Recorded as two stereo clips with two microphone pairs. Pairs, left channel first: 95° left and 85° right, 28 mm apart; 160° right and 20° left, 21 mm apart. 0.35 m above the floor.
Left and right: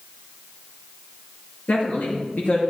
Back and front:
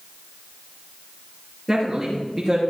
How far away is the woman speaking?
About 5 m.